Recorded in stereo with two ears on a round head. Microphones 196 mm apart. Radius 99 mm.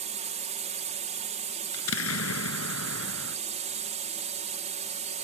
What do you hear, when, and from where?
0.0 s a drone: 35° right (ahead or behind)
1.7 s an explosion: 70° left (ahead or behind)